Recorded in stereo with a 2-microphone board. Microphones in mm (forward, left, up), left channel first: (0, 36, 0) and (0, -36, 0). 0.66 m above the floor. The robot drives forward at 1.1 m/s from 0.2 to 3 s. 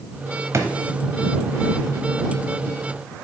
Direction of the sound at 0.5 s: 40° right (ahead or behind).